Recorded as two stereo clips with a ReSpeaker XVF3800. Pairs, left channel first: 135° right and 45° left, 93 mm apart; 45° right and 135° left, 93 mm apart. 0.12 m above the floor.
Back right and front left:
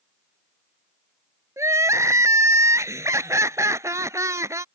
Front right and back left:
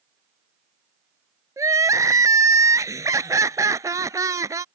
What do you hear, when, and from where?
1.6 s crying: 90° left